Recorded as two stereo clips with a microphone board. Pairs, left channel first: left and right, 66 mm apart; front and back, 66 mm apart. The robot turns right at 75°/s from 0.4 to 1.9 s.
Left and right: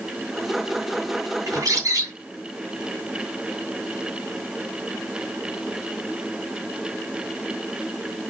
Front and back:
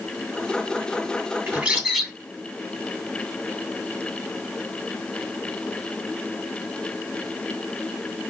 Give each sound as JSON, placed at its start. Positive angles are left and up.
{"t": 1.5, "sound": "a bird", "azimuth_deg": -120, "distance_m": 2.5}